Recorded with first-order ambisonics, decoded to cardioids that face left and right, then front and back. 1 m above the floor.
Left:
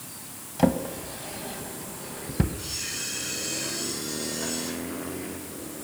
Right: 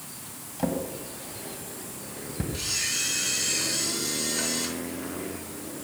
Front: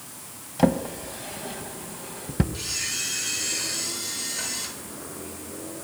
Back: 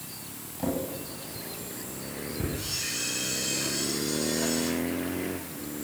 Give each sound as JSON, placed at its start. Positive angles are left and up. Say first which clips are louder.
{"t": 0.6, "sound": "a drawer", "louder": "left 5 dB, front 8 dB", "azimuth_deg": 30, "distance_m": 1.3}
{"t": 2.5, "sound": "a camera shutter", "louder": "right 5 dB, front 2 dB", "azimuth_deg": -60, "distance_m": 7.0}